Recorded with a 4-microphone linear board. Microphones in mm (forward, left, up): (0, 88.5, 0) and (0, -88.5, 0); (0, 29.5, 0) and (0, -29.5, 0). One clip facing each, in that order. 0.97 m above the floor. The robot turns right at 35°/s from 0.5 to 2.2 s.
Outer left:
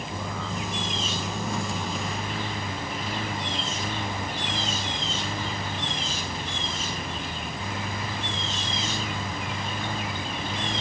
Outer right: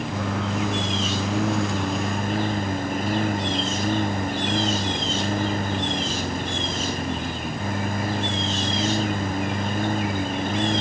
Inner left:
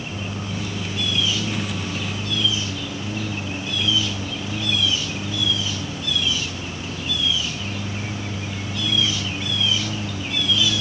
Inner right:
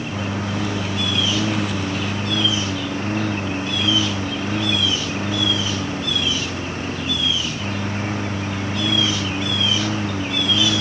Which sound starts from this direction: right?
A lawn mower, at 0.0 s.